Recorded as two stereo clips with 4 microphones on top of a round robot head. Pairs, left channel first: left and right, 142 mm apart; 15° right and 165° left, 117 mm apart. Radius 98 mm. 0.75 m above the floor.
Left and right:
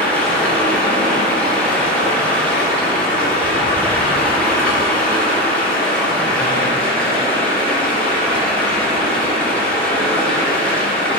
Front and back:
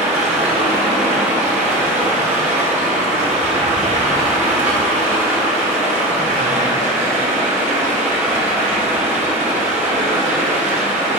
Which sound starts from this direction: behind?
Running water, at 0.0 s.